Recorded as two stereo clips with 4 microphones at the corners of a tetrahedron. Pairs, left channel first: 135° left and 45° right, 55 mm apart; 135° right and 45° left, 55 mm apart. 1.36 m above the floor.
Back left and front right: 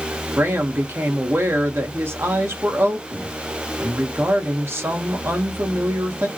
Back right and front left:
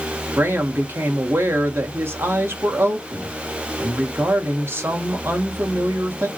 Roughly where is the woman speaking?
Ahead.